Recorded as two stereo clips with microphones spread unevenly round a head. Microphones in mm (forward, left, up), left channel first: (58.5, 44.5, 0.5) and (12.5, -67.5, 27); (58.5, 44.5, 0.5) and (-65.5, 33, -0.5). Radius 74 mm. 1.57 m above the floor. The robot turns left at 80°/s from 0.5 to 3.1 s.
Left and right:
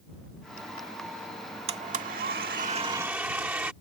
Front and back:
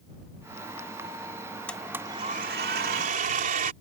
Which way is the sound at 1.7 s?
75° right.